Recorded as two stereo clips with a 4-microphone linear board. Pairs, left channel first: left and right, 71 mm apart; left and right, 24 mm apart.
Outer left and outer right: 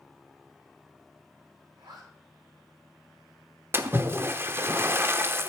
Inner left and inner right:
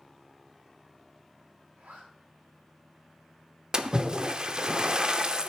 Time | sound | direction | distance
1.8 | a zipper | 75° right (ahead or behind) | 5.5 m
3.7 | a splash | 30° right (ahead or behind) | 0.7 m